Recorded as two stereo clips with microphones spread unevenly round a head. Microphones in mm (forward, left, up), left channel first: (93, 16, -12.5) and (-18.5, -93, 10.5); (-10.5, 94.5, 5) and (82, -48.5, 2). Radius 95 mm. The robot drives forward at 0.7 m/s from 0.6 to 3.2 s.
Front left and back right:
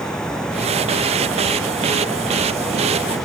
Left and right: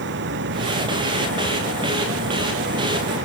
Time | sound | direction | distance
0.0 | running water | 40° right | ?